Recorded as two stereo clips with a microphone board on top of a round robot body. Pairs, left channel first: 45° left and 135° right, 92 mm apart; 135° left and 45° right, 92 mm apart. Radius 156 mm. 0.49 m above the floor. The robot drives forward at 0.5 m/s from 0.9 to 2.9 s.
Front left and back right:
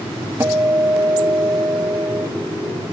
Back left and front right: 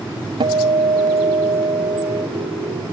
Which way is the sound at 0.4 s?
75° right.